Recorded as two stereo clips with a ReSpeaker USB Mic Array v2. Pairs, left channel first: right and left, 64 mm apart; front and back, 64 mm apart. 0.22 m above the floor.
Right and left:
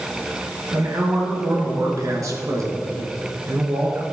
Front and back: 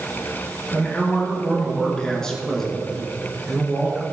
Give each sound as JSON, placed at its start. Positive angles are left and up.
{"t": 0.7, "sound": "a man speaking", "azimuth_deg": 65, "distance_m": 3.0}